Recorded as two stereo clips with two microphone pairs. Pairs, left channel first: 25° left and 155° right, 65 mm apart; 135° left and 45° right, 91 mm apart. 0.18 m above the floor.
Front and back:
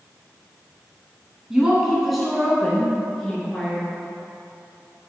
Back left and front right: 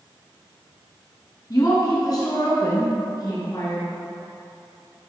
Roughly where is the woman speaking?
Behind left.